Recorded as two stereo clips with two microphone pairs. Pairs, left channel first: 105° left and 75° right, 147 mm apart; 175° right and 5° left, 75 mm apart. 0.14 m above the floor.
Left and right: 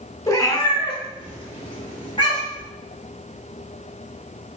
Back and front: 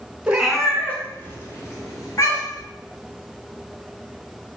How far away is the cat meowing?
About 0.7 m.